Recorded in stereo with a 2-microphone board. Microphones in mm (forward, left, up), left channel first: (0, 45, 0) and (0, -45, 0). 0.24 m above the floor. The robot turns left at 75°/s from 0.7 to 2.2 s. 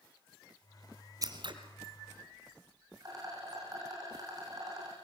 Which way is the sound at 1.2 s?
40° right (ahead or behind).